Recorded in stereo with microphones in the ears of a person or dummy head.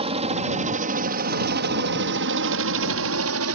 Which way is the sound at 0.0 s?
30° right (ahead or behind).